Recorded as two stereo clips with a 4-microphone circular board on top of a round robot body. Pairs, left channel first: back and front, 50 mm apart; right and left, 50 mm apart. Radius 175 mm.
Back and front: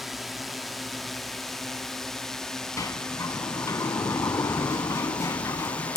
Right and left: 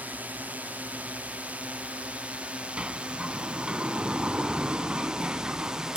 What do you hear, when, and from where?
0.0 s a drone: 85° left; by 6.0 s 155° left
2.8 s a sliding door: 160° left